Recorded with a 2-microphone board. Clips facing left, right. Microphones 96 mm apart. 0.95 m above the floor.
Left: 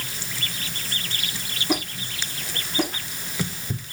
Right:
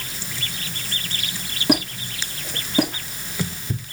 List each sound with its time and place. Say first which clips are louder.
1.7 s a squeak: right 6 dB; 75° right (ahead or behind), 5.5 m